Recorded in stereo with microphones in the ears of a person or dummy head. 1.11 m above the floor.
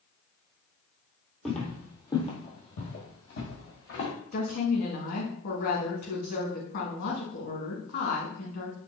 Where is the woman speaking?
55° left (ahead or behind), 1.7 m.